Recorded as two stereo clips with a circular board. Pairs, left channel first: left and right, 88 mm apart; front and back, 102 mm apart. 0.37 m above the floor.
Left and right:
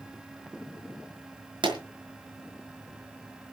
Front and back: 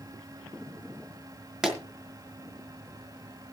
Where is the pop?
95° right, 5 m.